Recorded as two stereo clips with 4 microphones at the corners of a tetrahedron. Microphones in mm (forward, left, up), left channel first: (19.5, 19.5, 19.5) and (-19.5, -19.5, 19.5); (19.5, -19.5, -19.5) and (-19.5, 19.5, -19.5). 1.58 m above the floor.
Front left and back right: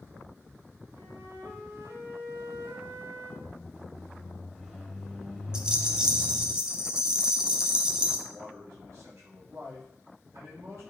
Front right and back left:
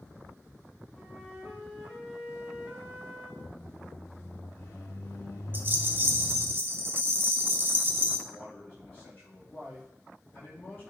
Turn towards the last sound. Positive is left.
turn(degrees=-105)